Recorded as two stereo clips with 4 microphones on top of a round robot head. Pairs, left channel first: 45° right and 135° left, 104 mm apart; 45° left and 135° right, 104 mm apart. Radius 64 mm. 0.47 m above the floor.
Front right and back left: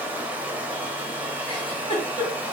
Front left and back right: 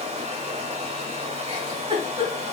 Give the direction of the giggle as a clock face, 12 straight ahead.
3 o'clock.